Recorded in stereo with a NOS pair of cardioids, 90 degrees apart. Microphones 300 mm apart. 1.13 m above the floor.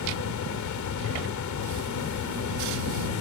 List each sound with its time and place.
0.0 s a fan: 65° left